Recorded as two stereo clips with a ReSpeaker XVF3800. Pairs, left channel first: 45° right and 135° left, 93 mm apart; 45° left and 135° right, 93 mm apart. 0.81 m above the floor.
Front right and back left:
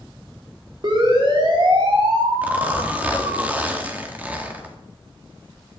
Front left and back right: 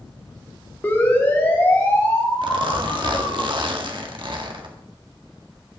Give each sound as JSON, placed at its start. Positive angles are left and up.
{"t": 0.8, "sound": "a siren", "azimuth_deg": 110, "distance_m": 3.0}
{"t": 2.4, "sound": "a zipper", "azimuth_deg": -155, "distance_m": 1.7}